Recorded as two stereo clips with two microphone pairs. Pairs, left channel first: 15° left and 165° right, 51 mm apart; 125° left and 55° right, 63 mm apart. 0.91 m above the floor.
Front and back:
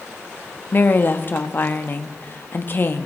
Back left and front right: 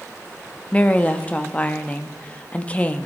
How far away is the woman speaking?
About 1.6 m.